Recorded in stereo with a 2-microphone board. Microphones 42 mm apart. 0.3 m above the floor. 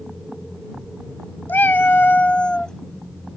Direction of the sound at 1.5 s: 65° left (ahead or behind).